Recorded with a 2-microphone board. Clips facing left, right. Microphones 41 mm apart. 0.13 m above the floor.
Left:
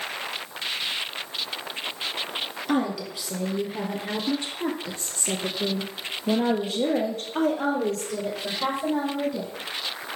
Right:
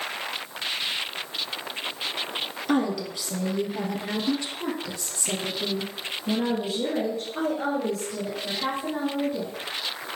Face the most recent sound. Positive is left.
turn(degrees=75)  # may be behind; listen again after turning